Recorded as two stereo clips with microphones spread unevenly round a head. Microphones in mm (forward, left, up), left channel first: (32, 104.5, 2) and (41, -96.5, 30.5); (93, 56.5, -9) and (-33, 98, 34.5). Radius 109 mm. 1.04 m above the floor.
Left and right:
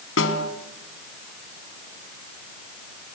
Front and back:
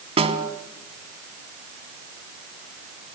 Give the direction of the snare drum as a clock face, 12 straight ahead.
8 o'clock.